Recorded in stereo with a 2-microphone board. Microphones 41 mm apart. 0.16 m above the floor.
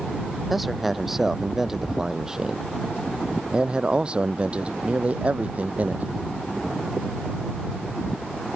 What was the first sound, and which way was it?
A man speaking, 5° right (ahead or behind).